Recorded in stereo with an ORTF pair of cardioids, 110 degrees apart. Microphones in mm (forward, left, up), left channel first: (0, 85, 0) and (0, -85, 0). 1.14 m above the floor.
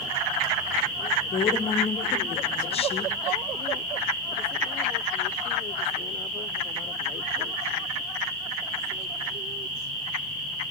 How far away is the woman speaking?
About 1.0 m.